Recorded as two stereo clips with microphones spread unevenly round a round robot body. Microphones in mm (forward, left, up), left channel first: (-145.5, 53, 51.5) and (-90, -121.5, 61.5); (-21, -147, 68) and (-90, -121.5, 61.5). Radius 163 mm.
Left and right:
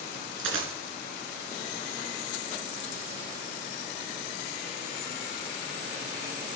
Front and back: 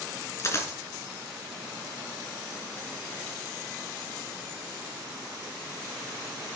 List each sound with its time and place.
0.4 s a dropped coin: 70° right, 3 m